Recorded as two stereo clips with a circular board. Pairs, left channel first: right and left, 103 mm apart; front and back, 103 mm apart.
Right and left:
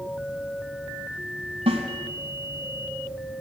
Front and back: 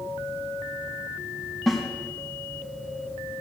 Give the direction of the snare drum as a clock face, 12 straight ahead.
9 o'clock.